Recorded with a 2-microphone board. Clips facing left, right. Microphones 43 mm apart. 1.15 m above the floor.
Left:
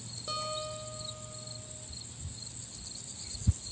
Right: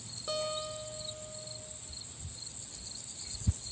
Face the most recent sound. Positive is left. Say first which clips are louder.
# right 1 dB
turn(degrees=-5)  # may be behind; listen again after turning